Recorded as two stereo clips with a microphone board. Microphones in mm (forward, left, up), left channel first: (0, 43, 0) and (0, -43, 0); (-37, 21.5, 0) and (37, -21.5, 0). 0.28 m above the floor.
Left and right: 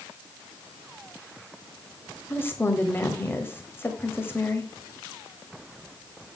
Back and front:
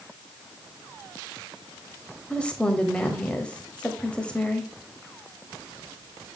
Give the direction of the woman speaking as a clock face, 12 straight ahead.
9 o'clock.